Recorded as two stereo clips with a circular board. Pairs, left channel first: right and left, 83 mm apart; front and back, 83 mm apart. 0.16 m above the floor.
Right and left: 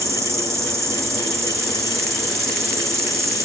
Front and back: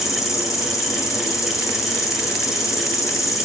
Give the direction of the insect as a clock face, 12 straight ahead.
11 o'clock.